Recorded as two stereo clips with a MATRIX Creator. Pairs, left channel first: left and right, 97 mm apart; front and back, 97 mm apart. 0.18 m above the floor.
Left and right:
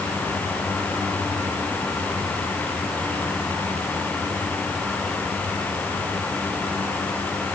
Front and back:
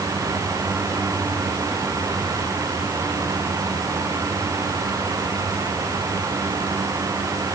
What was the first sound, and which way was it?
Only background noise.